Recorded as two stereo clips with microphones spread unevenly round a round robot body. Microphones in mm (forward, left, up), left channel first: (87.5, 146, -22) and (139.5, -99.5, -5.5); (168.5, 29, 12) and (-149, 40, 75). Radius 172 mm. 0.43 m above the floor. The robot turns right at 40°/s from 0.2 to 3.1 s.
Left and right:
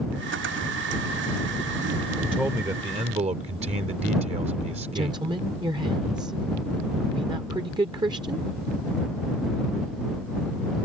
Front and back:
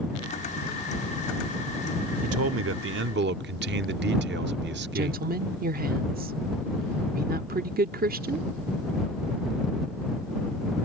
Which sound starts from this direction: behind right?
A woman speaking, at 5.0 s.